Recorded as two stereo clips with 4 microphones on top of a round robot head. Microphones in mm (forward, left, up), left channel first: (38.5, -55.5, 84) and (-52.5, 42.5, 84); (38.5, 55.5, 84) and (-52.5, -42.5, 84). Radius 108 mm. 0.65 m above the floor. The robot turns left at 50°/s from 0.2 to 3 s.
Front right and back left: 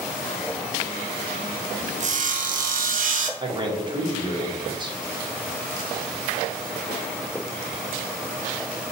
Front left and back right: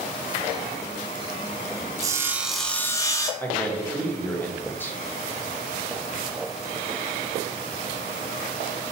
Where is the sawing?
165° left, 0.5 m; by 3.3 s 115° left, 0.5 m.